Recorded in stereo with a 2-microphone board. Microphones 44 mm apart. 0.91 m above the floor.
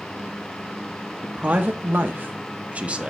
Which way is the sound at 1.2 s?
40° right (ahead or behind).